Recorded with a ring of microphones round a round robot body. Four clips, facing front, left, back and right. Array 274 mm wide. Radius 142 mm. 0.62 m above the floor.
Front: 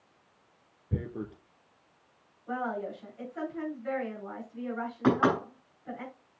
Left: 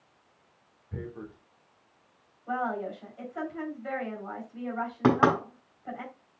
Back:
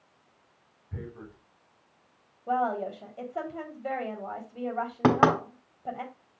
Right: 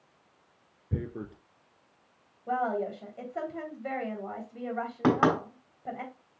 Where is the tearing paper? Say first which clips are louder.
Right 4 dB, front 6 dB; 45° right, 1.4 m.